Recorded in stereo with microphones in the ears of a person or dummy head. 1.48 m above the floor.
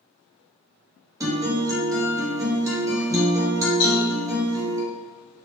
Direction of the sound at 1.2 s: 15° right (ahead or behind).